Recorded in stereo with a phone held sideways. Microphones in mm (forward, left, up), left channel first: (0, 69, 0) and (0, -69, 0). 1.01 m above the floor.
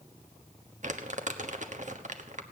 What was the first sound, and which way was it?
Crumpling, 60° right (ahead or behind).